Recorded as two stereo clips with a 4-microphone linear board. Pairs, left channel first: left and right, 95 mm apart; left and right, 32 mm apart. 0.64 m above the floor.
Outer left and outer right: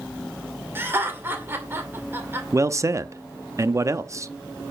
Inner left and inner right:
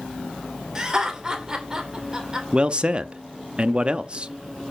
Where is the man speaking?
30° right (ahead or behind), 0.6 m.